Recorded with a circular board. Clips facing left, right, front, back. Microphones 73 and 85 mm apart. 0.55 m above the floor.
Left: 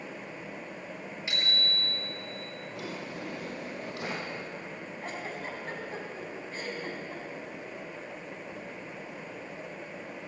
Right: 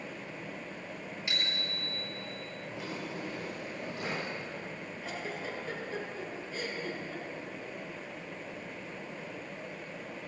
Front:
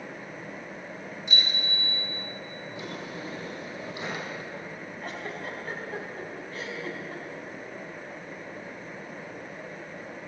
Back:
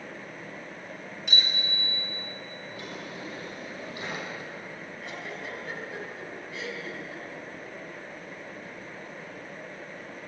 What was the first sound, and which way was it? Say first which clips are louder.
A bicycle bell: left 4 dB, even; 155° left.